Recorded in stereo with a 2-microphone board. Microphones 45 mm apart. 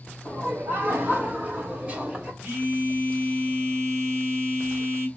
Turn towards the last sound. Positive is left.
turn(degrees=-55)  # may be behind; listen again after turning